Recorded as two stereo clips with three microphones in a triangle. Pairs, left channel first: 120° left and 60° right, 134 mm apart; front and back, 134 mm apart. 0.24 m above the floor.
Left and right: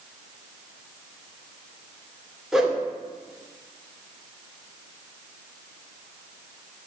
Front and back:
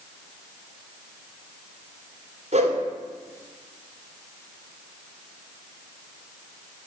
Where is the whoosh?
150° right, 1.9 m.